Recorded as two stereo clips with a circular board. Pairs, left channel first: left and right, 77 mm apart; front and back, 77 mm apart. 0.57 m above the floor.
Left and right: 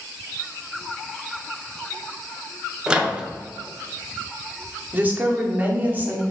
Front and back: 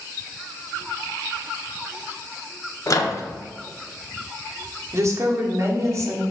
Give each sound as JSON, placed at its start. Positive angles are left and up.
{"t": 2.9, "sound": "a microwave", "azimuth_deg": -15, "distance_m": 0.6}
{"t": 4.9, "sound": "a woman speaking", "azimuth_deg": -150, "distance_m": 1.0}